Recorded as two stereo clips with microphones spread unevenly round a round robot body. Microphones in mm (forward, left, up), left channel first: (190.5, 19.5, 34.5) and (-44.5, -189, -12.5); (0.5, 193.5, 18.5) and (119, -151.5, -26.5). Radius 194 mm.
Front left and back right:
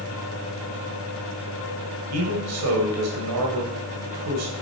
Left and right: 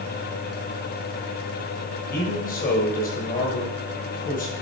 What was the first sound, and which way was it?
A man speaking, straight behind.